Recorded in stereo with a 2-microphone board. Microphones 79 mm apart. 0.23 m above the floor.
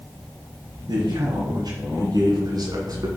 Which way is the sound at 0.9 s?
65° right (ahead or behind).